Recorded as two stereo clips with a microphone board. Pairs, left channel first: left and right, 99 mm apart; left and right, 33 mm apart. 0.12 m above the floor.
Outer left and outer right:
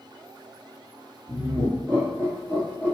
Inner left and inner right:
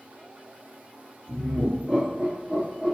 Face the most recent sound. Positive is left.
turn(degrees=-10)  # may be behind; listen again after turning